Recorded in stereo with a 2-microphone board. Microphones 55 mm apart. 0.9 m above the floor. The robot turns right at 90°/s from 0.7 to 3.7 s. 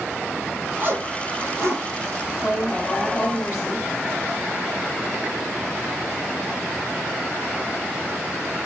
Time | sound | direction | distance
0.8 | a zipper | 40° right (ahead or behind) | 4 m
2.4 | a woman speaking | 10° right | 6 m